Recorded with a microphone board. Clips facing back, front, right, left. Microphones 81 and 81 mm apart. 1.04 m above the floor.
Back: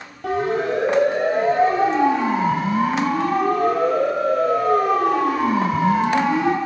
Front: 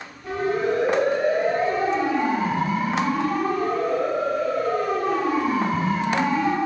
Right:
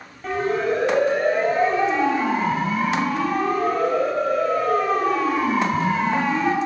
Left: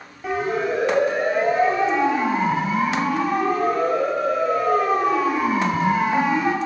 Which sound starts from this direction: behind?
A siren, at 0.2 s.